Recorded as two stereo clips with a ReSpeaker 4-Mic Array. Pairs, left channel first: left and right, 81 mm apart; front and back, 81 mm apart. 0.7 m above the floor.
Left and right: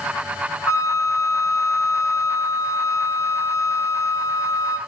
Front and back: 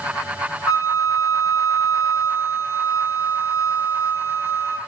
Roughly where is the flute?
Ahead left.